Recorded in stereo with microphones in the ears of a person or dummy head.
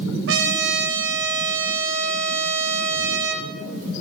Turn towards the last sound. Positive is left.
turn(degrees=-60)  # may be behind; listen again after turning